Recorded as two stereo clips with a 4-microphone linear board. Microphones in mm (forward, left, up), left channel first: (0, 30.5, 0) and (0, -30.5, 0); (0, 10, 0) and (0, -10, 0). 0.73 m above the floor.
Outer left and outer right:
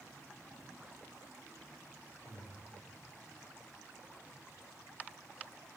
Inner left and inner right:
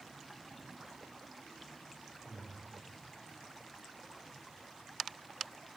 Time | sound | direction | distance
2.2 | breathing | 40° right (ahead or behind) | 2.5 m